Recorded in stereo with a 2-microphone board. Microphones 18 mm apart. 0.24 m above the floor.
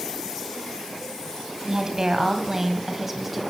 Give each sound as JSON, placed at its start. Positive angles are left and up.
{"t": 1.7, "sound": "a woman speaking", "side_deg": -40, "distance_m": 1.9}